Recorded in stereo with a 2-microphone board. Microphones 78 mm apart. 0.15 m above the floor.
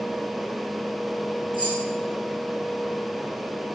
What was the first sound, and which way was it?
Keys jangling, 80° right.